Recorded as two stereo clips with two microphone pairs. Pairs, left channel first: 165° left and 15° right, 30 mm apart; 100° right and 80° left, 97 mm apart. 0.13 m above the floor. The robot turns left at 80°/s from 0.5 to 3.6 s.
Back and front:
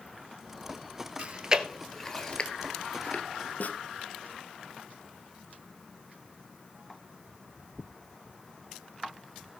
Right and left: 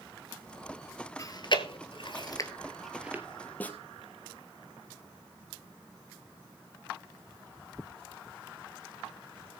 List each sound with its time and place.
1.2 s chewing: 50° right, 1.1 m; by 3.2 s 145° left, 1.1 m
3.6 s a snare drum: 170° right, 1.3 m